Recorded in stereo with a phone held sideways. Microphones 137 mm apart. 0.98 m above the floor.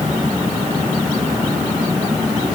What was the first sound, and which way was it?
Only background noise.